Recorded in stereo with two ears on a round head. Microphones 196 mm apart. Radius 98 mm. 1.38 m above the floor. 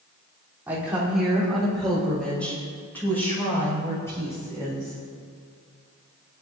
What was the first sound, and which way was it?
A woman speaking, 10° right (ahead or behind).